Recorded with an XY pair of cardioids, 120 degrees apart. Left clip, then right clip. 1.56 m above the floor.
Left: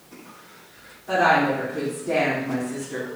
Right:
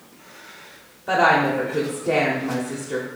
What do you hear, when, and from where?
1.1 s a woman speaking: 70° right, 0.9 m